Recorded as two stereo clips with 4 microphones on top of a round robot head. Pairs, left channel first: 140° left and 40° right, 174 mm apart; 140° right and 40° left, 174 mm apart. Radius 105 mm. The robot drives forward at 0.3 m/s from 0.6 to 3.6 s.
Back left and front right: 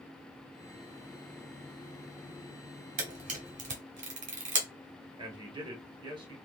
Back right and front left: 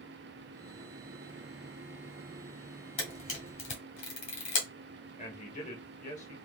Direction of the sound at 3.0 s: 80° right.